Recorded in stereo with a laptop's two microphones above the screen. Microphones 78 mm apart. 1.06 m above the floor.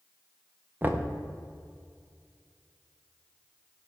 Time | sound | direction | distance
0.8 | knocking | 25° right (ahead or behind) | 0.5 m